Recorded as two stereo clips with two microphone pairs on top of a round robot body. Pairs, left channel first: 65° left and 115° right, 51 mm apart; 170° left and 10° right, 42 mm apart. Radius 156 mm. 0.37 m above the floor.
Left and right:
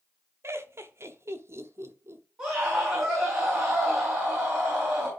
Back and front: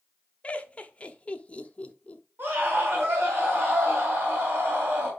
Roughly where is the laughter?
Behind right.